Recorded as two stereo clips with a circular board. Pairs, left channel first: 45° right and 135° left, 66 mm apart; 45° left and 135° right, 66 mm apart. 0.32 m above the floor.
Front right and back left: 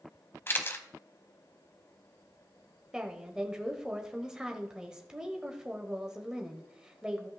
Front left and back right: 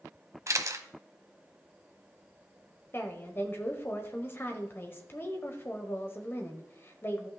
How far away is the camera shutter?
About 0.8 m.